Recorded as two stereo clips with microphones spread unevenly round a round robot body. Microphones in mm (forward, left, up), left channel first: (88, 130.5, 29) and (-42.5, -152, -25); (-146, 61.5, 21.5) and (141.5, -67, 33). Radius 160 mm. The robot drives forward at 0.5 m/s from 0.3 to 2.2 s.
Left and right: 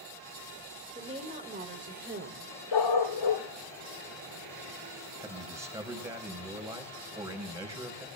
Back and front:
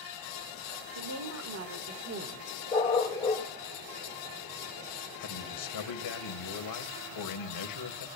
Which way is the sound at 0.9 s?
50° right.